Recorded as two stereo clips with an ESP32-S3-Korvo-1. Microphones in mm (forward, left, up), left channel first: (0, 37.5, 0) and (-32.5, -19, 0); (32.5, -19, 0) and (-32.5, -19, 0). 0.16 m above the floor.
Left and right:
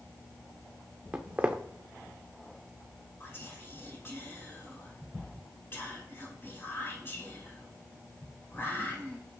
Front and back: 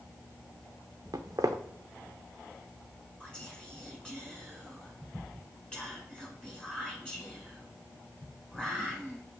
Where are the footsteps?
175° left, 0.5 m.